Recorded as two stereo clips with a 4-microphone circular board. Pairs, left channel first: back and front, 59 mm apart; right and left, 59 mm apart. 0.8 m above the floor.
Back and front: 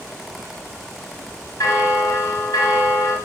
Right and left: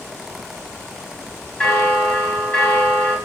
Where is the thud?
I don't hear a thud.